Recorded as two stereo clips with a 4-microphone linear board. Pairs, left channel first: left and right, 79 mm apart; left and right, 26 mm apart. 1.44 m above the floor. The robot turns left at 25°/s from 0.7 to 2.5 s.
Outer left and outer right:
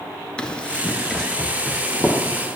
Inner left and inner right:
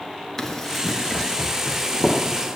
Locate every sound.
0.4 s running footsteps: 10° left (ahead or behind), 1.4 m; by 2.5 s 20° right (ahead or behind), 2 m